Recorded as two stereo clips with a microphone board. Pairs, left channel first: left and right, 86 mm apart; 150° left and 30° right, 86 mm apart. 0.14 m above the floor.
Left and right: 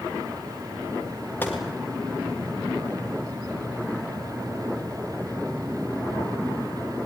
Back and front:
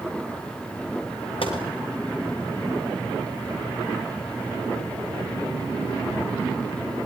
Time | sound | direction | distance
1.4 | a gunshot | 160° left | 6 m